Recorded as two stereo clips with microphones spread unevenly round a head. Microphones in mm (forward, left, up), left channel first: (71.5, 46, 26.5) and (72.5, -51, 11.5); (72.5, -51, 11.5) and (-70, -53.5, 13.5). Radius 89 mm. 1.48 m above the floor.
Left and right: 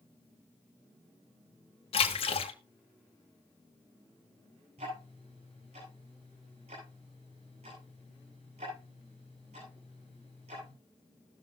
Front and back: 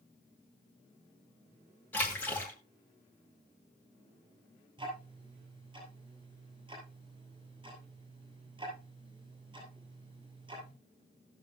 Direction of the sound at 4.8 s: 125° right.